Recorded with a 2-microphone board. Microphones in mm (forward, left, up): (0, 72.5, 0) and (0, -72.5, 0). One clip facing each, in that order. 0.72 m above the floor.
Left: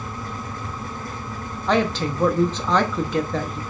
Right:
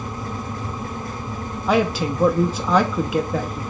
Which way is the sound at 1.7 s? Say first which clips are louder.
Right 1 dB; 10° right (ahead or behind).